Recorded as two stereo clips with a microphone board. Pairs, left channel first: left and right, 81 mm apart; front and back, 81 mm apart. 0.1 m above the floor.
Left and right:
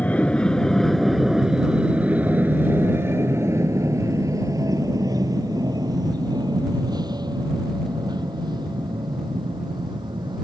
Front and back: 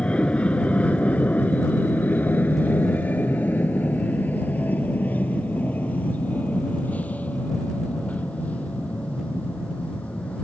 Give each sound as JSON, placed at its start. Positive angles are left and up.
{"t": 0.0, "sound": "an aircraft", "azimuth_deg": 50}